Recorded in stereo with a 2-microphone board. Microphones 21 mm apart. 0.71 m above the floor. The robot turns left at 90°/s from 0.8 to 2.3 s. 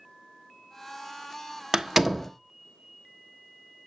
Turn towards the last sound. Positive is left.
turn(degrees=5)  # may be behind; listen again after turning